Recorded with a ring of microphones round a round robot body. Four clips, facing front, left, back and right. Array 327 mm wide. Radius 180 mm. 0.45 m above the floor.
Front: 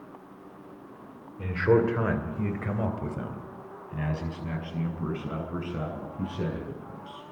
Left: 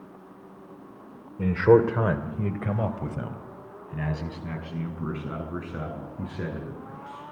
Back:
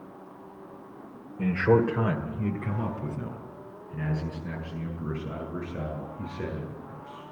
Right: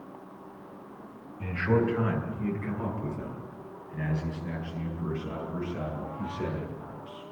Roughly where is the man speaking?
Left.